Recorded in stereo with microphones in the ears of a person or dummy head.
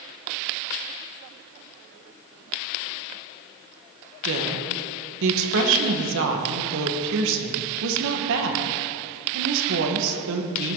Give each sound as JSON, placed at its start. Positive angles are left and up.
{"t": 4.2, "sound": "a woman speaking", "side_deg": -70, "distance_m": 1.7}